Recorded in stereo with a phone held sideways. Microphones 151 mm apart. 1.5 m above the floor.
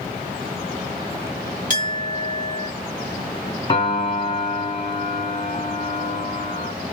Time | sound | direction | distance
1.7 | a clink | 55° right (ahead or behind) | 1.5 m
3.7 | a piano | 30° left (ahead or behind) | 1.2 m